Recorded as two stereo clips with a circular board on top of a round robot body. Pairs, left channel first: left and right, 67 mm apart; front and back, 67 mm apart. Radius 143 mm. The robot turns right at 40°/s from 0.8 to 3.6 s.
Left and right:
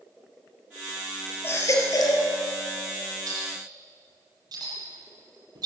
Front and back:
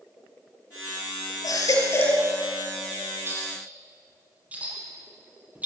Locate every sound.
1.4 s a baby crying: 30° left, 4 m; by 2.3 s 65° left, 4 m
3.3 s a clink: 125° right, 8.5 m; by 5.7 s 110° right, 8.5 m